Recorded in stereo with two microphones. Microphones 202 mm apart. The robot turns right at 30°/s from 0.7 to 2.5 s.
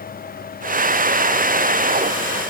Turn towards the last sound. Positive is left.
No sound to turn to.